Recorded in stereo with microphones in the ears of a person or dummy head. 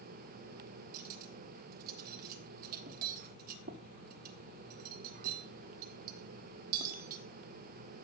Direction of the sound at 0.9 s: 50° right (ahead or behind).